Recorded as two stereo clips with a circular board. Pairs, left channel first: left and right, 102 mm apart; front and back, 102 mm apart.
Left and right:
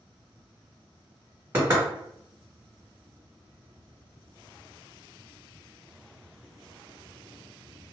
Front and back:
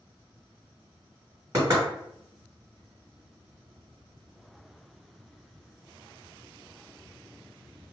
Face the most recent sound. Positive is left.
turn(degrees=-140)